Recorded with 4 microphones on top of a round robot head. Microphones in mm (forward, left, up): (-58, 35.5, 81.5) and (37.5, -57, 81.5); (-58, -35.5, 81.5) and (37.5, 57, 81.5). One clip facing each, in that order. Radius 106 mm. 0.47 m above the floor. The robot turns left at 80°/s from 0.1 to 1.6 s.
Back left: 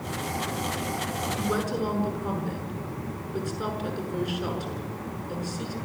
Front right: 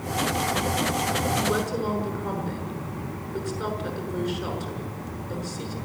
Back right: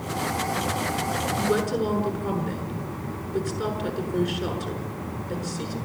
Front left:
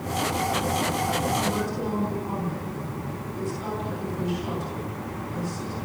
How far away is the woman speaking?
About 7 m.